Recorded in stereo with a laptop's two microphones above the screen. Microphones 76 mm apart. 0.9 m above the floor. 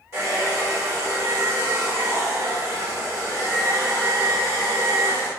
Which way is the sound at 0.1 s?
40° right (ahead or behind).